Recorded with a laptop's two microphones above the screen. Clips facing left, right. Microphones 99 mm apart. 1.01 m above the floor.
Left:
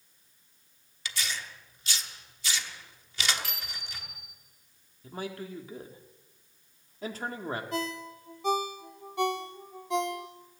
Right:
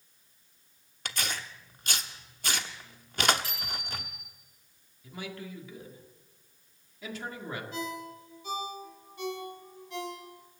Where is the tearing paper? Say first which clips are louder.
Right 1 dB; 50° right (ahead or behind), 0.9 m.